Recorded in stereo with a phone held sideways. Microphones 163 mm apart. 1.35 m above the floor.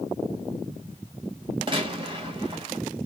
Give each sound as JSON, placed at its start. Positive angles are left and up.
{"t": 1.7, "sound": "a gunshot", "side_deg": -30, "distance_m": 1.0}